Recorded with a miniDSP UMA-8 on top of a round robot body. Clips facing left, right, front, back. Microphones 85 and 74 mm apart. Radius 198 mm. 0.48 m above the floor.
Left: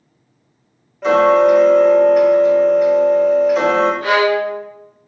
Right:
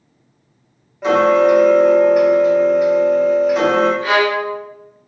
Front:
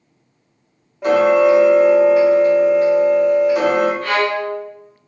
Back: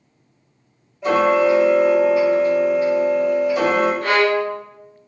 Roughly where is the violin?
Behind left.